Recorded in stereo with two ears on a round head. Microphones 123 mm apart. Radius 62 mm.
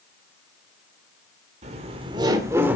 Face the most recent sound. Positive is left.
turn(degrees=-10)  # may be behind; listen again after turning